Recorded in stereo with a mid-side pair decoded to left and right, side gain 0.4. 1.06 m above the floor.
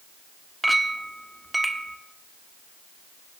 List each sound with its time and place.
0.6 s a clink: 10° right, 1.3 m